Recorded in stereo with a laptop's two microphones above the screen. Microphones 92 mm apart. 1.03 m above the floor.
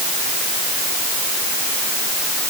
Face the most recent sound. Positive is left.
No sound to turn to.